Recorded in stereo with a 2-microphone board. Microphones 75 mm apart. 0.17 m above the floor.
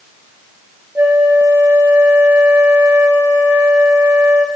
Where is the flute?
25° right (ahead or behind), 3 m.